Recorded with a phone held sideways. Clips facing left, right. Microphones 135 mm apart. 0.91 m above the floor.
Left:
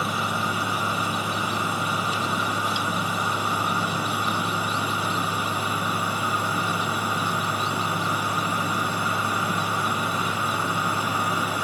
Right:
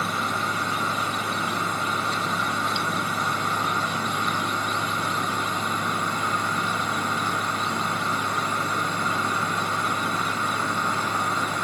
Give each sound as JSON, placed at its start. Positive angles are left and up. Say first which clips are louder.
{"t": 0.0, "sound": "a fan", "louder": "left 1 dB", "side_deg": 10}